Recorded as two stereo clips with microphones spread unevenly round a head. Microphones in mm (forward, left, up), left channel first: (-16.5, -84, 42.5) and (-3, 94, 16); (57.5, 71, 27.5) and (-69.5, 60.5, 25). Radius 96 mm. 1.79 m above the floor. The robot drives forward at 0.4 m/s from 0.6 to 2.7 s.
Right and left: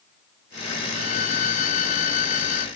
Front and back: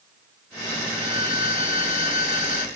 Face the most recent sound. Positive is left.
turn(degrees=-45)